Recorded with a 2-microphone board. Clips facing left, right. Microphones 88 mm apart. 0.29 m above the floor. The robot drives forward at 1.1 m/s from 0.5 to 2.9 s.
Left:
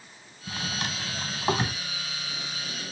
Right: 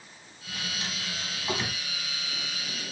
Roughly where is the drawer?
Left.